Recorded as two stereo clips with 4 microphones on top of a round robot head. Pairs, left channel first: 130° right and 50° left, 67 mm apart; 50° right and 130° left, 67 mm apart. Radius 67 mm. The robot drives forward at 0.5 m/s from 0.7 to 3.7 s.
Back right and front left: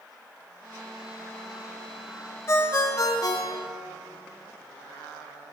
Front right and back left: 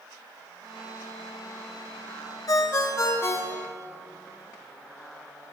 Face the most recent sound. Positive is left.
turn(degrees=-115)